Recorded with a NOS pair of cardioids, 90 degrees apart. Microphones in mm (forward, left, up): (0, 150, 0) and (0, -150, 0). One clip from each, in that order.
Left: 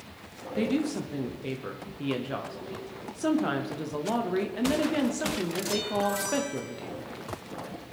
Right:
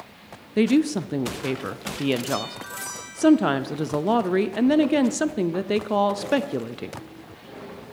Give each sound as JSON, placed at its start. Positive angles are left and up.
{"t": 0.6, "sound": "a woman speaking", "azimuth_deg": -40, "distance_m": 0.6}